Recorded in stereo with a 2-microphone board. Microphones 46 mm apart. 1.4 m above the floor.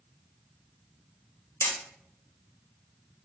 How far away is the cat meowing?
No cat meowing in this recording.